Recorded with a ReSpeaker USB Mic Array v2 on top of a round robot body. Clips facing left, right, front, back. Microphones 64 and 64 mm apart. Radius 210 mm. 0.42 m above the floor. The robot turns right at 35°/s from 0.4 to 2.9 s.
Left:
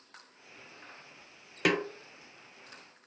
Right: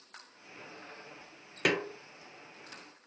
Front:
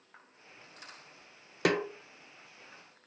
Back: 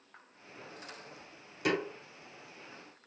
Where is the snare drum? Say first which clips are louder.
Left 2 dB, front 3 dB; straight ahead, 1.0 m; by 1.9 s 5° left, 1.0 m.